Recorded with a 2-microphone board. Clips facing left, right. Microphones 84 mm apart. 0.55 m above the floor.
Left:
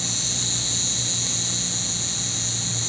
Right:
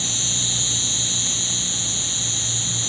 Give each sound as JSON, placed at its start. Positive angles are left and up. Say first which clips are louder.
{"t": 0.0, "sound": "an insect", "louder": "right 1 dB", "side_deg": 15, "distance_m": 0.9}